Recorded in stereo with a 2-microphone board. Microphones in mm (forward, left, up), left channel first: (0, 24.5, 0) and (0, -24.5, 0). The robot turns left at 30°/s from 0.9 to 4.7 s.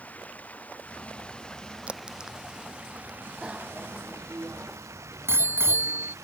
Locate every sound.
0.0 s running water: 30° left; by 6.2 s 80° right
1.9 s a crack: 25° right (ahead or behind); by 3.2 s 15° left (ahead or behind)
3.4 s a bicycle bell: 15° right (ahead or behind); by 6.2 s 55° right (ahead or behind)